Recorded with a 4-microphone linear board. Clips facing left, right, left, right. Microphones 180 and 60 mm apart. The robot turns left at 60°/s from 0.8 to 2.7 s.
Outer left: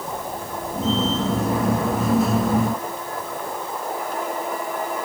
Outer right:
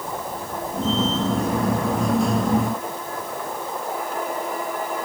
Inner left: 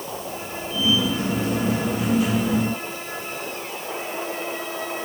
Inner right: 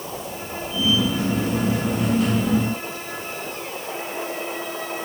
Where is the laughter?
No laughter in this recording.